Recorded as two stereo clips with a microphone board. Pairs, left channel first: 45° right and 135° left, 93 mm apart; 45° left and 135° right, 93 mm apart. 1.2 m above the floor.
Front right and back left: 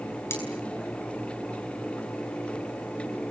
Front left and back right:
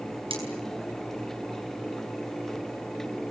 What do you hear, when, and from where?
0.3 s cutlery clinking: 110° right, 9.5 m